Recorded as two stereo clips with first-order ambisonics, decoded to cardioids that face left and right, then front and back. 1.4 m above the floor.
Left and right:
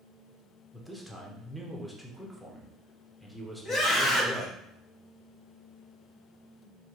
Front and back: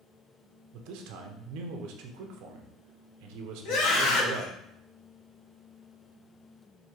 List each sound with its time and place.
0.7 s a man speaking: straight behind, 0.7 m
3.6 s a scream: 10° left, 1.2 m